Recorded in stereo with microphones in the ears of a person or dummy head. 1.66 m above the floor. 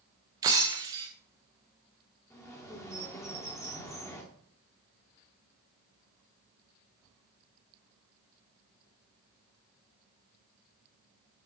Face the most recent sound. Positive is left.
turn(degrees=15)  # may be behind; listen again after turning